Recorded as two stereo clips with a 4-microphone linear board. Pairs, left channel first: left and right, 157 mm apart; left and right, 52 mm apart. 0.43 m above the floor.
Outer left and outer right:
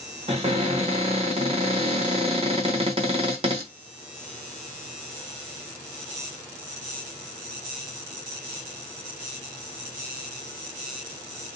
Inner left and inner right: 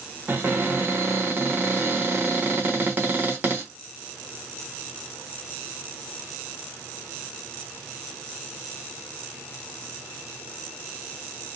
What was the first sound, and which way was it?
A cupboard door, 40° right (ahead or behind).